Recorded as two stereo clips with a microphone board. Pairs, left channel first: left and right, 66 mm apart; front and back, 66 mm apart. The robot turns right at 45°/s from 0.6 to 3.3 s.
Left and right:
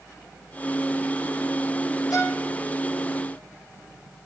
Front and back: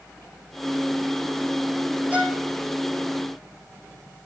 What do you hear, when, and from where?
2.1 s a violin: 110° left, 1.5 m; by 2.4 s 125° left, 1.5 m